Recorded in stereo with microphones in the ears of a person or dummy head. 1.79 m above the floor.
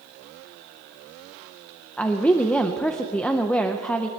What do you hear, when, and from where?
2.0 s a woman speaking: 10° left (ahead or behind), 0.5 m